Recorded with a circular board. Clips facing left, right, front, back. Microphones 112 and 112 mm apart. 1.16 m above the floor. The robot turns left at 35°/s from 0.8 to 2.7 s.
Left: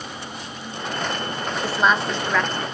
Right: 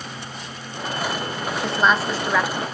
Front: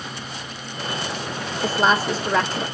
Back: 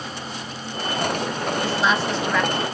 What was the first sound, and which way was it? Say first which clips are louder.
A woman speaking: even, front 4 dB; 10° left.